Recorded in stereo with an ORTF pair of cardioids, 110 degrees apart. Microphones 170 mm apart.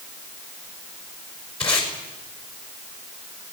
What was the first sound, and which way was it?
Tape being pulled, 35° left.